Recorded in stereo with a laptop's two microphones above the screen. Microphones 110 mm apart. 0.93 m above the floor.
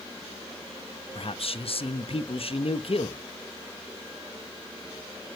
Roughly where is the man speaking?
Left.